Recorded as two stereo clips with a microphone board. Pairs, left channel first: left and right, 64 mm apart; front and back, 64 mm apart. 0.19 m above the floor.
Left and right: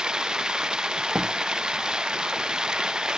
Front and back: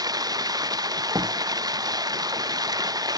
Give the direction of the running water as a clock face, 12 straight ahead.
6 o'clock.